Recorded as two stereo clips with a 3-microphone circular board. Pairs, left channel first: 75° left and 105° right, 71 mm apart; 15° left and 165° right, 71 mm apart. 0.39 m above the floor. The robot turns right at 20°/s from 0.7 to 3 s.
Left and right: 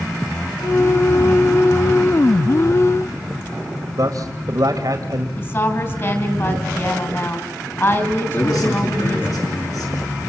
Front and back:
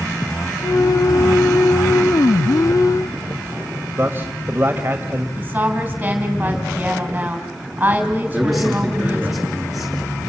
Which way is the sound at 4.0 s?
110° right.